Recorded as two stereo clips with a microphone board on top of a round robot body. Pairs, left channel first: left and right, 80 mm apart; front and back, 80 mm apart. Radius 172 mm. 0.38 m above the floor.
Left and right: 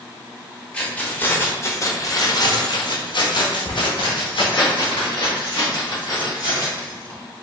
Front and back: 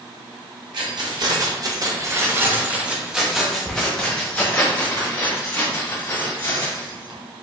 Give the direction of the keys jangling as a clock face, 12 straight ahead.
6 o'clock.